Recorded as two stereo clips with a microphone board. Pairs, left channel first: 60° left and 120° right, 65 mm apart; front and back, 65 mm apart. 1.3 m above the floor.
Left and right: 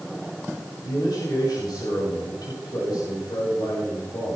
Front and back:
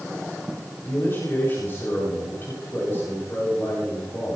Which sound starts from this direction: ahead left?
A man speaking, at 0.8 s.